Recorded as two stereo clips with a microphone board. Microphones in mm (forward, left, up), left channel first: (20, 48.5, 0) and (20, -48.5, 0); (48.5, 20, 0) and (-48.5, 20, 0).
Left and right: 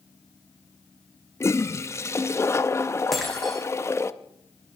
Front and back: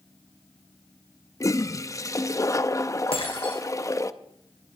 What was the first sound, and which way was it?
A toilet flushing, 40° left.